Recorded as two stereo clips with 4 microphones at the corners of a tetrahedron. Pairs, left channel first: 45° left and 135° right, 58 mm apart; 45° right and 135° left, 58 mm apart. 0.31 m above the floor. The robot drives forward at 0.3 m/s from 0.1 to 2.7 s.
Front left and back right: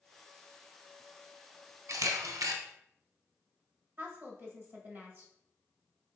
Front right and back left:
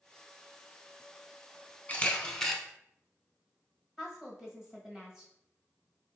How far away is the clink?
I don't hear a clink.